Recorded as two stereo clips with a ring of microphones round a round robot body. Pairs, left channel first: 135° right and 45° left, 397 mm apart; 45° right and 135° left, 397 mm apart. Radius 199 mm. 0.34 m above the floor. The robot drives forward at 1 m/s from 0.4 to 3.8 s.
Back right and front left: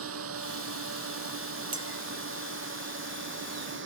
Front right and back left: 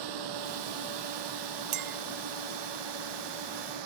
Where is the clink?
120° left; by 2.0 s 140° left.